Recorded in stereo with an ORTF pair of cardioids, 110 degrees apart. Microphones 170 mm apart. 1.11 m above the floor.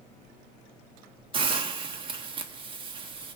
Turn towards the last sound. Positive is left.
turn(degrees=-30)